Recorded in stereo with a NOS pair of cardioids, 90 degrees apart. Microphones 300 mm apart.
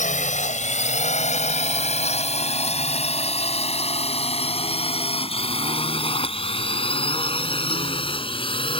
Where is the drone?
25° left; by 8.8 s 15° left.